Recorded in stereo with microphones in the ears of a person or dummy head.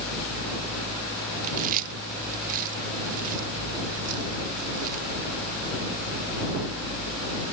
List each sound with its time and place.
1.4 s chewing: 45° right (ahead or behind)